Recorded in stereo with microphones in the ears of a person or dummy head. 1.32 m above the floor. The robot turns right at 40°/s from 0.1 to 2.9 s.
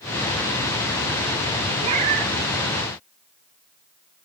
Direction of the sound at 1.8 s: 35° right (ahead or behind).